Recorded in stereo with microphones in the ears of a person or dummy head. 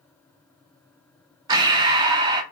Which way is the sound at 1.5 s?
20° right (ahead or behind).